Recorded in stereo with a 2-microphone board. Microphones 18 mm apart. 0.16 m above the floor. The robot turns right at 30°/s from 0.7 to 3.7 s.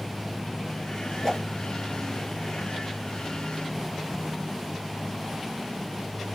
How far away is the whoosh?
About 3 m.